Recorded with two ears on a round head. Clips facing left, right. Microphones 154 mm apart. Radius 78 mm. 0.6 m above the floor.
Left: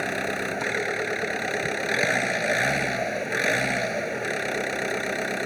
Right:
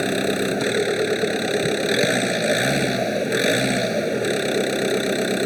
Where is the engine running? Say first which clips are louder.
Right 8 dB; 45° right (ahead or behind).